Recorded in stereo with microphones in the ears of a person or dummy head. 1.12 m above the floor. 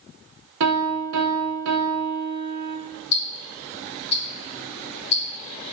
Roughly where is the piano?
Right.